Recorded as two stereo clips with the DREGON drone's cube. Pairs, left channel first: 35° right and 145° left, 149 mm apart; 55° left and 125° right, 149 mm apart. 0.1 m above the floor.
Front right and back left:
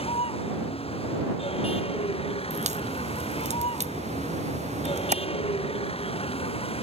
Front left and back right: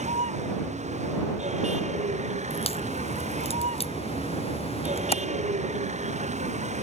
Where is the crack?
105° left.